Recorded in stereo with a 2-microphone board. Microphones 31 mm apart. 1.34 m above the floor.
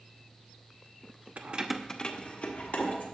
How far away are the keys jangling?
About 0.6 m.